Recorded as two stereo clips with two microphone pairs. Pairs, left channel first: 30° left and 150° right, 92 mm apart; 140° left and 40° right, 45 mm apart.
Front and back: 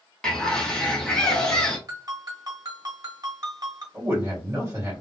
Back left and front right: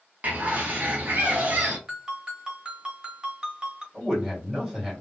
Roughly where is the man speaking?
Behind right.